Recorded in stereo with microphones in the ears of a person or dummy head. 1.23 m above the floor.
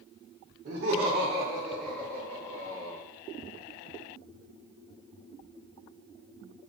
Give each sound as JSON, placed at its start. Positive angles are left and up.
{"t": 0.7, "sound": "laughter", "side_deg": -40, "distance_m": 0.8}